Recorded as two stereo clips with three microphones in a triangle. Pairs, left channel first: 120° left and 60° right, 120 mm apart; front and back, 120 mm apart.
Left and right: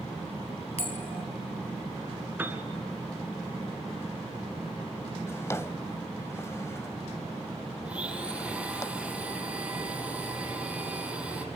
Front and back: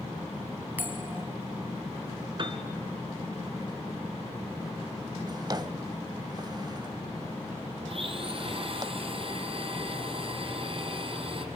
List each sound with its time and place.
0.8 s a bell: 110° left, 1.8 m
2.4 s a piano: 135° right, 2 m
5.3 s a drawer: 165° left, 0.7 m
7.8 s a blender: 140° right, 2 m